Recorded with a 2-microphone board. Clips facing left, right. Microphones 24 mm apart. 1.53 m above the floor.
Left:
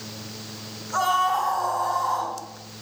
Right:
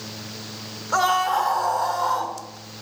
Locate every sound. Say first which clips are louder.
0.9 s a scream: right 2 dB; 70° right (ahead or behind), 2.5 m; by 2.4 s 65° right (ahead or behind), 3 m